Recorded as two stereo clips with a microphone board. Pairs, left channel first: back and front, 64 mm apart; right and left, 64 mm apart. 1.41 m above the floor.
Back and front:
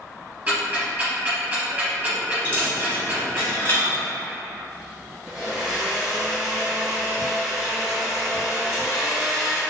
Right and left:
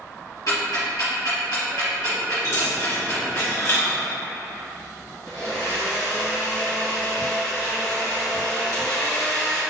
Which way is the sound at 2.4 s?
130° right.